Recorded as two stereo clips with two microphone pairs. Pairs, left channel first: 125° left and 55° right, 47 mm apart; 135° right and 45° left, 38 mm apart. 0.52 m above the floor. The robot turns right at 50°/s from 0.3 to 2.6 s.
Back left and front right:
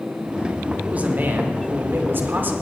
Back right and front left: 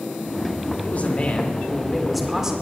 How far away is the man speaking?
About 1.9 m.